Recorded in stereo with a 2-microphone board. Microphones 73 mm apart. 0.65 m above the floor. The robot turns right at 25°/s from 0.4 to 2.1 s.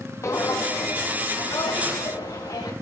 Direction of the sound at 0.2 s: 40° left (ahead or behind).